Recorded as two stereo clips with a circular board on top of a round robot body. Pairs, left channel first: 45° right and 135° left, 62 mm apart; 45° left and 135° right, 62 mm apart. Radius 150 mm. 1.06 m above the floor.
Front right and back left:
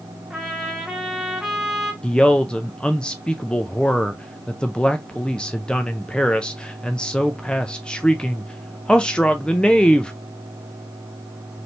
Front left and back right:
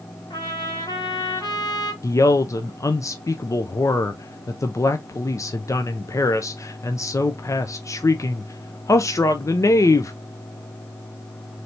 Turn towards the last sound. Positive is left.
turn(degrees=30)